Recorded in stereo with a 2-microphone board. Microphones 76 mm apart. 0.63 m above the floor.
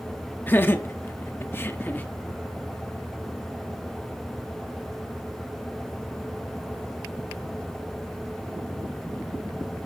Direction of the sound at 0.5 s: 25° left (ahead or behind).